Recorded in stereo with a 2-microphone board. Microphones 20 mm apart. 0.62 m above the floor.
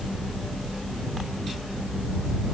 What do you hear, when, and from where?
Only background noise.